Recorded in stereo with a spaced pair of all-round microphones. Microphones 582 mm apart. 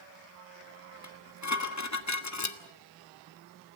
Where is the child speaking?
No child speaking in this recording.